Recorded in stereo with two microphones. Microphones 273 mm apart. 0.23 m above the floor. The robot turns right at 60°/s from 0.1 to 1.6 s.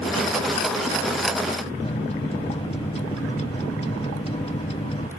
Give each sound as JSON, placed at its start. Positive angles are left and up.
{"t": 1.8, "sound": "a microwave", "side_deg": 25}